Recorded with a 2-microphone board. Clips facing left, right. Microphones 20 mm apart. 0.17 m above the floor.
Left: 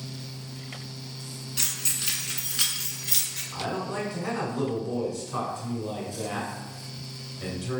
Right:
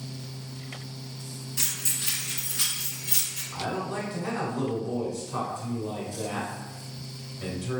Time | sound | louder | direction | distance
1.6 | keys jangling | left 1 dB | 45° left (ahead or behind) | 1.2 m
3.5 | a man speaking | even | 15° left (ahead or behind) | 1.5 m